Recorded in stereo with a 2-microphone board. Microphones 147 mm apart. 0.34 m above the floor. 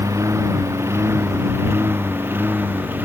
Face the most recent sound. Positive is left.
turn(degrees=-15)  # may be behind; listen again after turning